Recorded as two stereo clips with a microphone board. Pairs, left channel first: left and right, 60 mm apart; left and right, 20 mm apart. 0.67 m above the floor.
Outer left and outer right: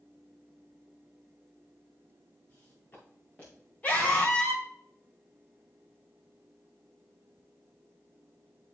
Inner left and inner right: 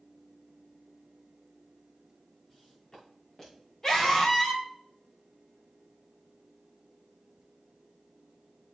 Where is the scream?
25° left (ahead or behind), 3 m.